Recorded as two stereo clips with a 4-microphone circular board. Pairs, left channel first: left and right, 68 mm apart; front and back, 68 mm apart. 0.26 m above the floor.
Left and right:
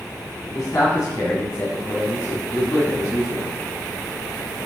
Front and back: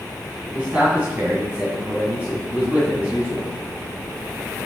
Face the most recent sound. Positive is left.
turn(degrees=115)